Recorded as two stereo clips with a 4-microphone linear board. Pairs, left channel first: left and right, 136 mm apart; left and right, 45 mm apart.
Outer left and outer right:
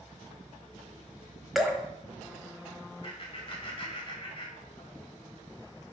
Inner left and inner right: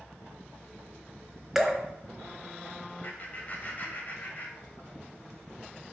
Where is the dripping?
Centre (ahead or behind), 1.1 m.